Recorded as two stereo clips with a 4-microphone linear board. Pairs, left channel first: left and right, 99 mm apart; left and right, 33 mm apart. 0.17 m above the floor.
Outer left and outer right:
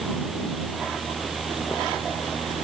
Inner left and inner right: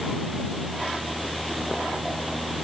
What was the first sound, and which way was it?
Only background noise.